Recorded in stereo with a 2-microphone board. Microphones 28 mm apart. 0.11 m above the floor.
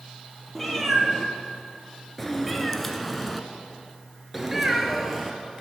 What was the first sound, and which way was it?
A cat meowing, 5° left (ahead or behind).